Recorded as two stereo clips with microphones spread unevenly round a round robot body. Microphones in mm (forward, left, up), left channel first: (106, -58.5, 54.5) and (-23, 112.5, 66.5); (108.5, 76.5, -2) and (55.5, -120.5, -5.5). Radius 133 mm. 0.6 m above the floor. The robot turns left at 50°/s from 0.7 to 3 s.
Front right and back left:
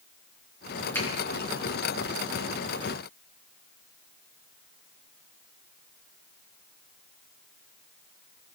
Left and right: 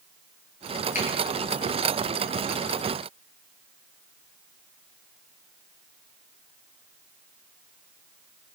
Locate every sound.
0.9 s a finger snap: 25° left, 7.5 m; by 1.1 s 20° left, 7.5 m